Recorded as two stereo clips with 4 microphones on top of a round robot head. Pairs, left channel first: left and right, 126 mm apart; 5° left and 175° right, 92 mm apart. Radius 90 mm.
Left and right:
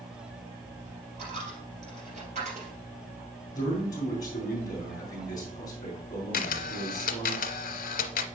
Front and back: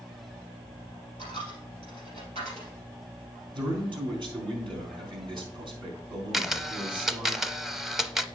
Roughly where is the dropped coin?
Behind right.